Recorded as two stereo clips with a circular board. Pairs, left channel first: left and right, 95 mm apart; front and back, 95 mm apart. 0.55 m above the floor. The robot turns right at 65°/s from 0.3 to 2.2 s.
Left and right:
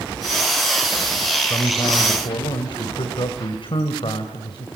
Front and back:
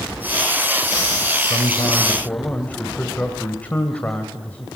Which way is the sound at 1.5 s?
30° left.